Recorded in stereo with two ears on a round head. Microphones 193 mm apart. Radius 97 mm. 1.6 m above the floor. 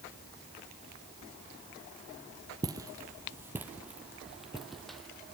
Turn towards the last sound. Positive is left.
turn(degrees=5)  # may be behind; listen again after turning